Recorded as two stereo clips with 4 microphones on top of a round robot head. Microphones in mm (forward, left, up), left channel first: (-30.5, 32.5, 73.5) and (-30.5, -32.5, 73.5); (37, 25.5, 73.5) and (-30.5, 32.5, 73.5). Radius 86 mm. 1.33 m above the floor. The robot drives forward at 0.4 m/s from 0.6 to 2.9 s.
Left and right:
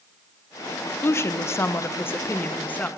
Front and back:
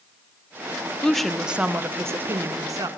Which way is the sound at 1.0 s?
65° left.